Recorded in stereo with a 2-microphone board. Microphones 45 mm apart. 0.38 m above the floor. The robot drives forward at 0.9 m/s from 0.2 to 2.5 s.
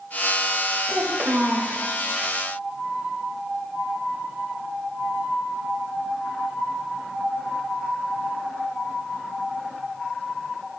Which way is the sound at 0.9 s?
45° right (ahead or behind).